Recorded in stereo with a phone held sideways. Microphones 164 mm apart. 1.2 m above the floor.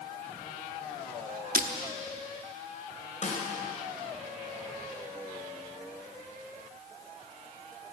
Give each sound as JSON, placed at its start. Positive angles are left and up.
{"t": 1.6, "sound": "breaking glass", "side_deg": -60, "distance_m": 1.2}
{"t": 3.2, "sound": "a snare drum", "side_deg": 50, "distance_m": 4.0}